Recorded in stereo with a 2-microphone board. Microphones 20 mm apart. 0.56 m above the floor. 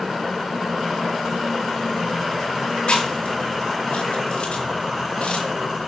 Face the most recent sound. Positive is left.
turn(degrees=75)  # may be behind; listen again after turning